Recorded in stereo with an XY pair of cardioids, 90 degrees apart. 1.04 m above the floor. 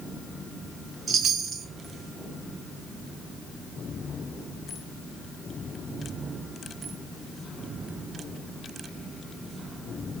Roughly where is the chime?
Ahead right.